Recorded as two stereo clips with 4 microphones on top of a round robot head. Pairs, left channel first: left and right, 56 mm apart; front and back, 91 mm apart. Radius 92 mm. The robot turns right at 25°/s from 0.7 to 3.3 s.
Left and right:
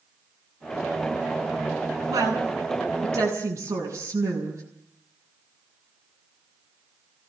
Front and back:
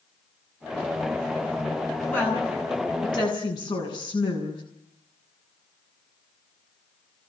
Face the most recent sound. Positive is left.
turn(degrees=-40)